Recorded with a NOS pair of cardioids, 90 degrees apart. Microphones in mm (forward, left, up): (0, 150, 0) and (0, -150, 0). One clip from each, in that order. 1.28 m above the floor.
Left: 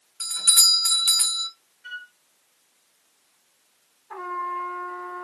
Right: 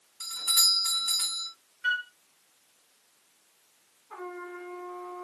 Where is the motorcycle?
No motorcycle in this recording.